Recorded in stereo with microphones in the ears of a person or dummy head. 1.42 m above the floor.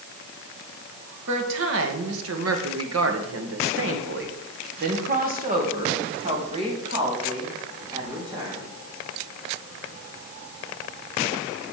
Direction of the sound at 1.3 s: 60° right (ahead or behind).